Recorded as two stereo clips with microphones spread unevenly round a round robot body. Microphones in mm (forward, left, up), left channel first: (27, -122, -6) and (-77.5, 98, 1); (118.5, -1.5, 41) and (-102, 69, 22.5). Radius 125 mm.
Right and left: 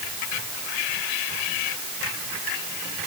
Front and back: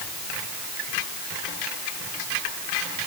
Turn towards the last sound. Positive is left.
No sound to turn to.